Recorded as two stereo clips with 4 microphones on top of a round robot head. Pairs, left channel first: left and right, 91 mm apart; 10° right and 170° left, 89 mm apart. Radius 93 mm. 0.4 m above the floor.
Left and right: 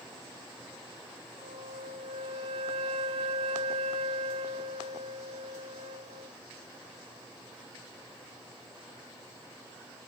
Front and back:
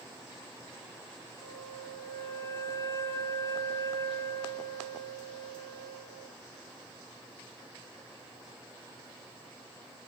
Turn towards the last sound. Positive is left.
turn(degrees=-70)